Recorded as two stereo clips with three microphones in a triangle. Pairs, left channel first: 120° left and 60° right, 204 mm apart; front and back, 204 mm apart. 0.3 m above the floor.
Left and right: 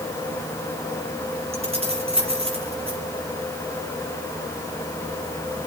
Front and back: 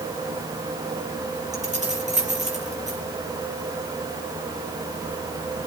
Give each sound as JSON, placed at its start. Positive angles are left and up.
{"t": 1.5, "sound": "keys jangling", "azimuth_deg": -125, "distance_m": 4.5}